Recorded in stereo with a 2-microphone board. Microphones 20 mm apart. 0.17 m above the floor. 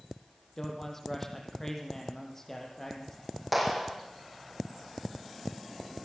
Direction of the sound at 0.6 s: 20° left (ahead or behind).